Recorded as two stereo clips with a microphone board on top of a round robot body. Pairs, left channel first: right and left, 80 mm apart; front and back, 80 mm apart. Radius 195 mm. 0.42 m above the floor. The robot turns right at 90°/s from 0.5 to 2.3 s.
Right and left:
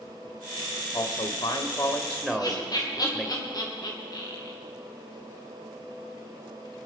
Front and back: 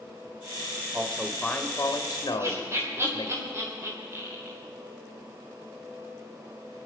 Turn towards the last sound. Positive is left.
turn(degrees=-125)